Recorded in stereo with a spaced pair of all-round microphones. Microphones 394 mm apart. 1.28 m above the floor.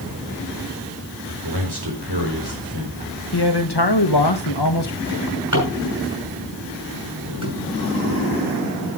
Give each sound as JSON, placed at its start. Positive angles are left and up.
{"t": 1.2, "sound": "a man speaking", "side_deg": -75, "distance_m": 4.0}
{"t": 3.3, "sound": "a man speaking", "side_deg": 80, "distance_m": 1.4}
{"t": 5.1, "sound": "a drawer", "side_deg": -50, "distance_m": 6.0}